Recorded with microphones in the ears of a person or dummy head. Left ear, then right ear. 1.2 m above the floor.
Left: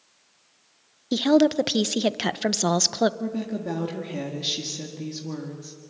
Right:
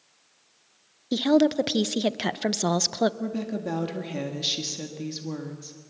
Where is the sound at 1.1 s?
5° left (ahead or behind), 0.5 m.